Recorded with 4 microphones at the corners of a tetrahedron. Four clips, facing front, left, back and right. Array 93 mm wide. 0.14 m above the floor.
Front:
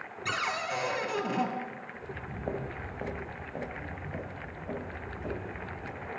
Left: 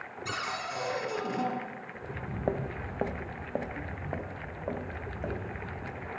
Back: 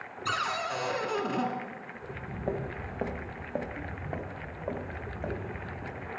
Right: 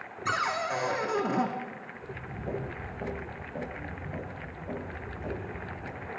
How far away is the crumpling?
I don't hear crumpling.